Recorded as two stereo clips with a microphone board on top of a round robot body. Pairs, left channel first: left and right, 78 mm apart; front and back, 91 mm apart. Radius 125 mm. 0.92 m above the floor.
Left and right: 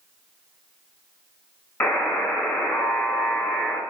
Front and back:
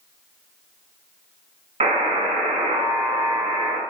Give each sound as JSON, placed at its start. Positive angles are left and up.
{"t": 1.8, "sound": "a buzzer", "azimuth_deg": 165, "distance_m": 1.3}